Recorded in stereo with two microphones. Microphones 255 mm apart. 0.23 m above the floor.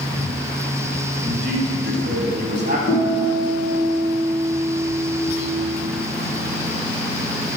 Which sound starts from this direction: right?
A man speaking, at 1.2 s.